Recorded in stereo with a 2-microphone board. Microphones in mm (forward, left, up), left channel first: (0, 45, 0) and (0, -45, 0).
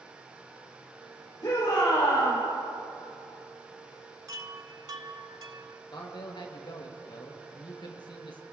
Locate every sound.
1.4 s a shout: 45° left (ahead or behind), 5 m
4.3 s a chime: 50° right (ahead or behind), 0.6 m
5.9 s a man speaking: 60° left (ahead or behind), 2.5 m